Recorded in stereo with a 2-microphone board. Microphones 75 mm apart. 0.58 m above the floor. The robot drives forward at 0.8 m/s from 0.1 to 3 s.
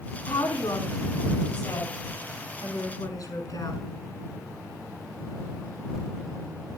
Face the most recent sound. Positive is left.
turn(degrees=55)  # may be behind; listen again after turning